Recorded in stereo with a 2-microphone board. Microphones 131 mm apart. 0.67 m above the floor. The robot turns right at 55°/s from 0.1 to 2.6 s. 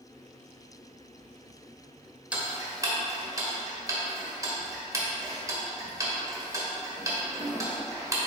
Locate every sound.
2.3 s ticking: 10° right (ahead or behind), 1.3 m; by 8.3 s 25° right (ahead or behind), 1.3 m